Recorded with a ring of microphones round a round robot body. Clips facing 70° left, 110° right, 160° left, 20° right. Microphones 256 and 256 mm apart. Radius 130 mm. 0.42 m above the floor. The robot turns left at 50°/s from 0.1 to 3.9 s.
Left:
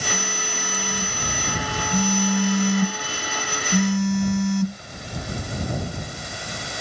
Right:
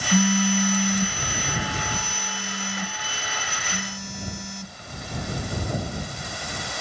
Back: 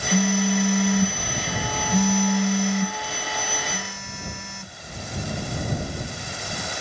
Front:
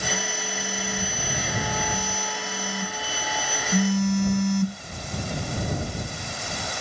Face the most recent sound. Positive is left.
turn(degrees=30)